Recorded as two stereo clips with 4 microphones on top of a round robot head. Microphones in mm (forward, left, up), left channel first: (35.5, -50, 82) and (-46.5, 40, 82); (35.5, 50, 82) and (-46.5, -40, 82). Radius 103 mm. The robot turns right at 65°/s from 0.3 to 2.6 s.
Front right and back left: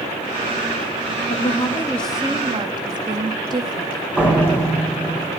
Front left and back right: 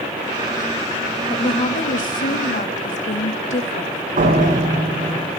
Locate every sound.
1.3 s a woman speaking: 10° right, 1.9 m; by 4.1 s 75° left, 1.9 m
4.2 s a door slam: 150° right, 4 m